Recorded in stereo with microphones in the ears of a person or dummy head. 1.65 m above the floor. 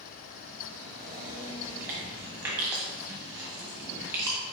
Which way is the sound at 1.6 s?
10° right (ahead or behind).